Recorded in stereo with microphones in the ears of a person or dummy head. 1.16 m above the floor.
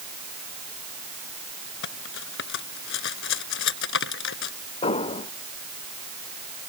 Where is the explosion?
25° left (ahead or behind).